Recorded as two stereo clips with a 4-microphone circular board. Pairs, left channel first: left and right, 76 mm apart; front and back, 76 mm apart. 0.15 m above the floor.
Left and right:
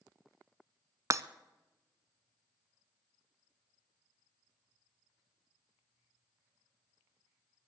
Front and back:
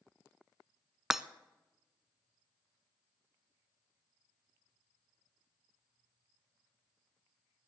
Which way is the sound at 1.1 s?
100° right.